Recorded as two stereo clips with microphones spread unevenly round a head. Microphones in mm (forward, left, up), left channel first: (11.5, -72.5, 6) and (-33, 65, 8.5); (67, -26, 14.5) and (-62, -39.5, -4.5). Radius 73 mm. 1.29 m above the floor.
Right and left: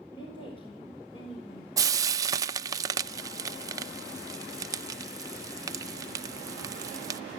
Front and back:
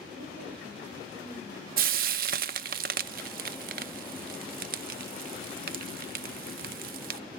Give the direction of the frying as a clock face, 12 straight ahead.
6 o'clock.